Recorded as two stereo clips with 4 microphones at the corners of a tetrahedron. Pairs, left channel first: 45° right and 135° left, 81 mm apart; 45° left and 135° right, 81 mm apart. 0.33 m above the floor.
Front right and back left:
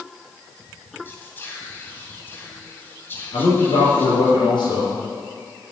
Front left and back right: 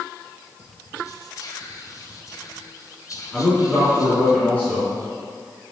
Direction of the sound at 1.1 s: 15° left.